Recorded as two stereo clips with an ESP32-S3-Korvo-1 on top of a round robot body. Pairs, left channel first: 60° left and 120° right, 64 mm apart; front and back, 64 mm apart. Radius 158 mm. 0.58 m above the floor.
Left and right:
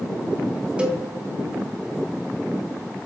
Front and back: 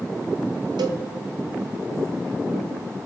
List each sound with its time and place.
0.8 s a cowbell: 165° left, 0.5 m